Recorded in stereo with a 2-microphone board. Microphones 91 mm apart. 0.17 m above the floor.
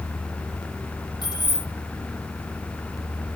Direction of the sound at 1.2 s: 50° left (ahead or behind).